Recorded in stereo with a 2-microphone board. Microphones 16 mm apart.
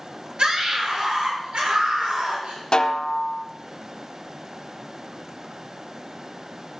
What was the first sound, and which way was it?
A scream, 70° right (ahead or behind).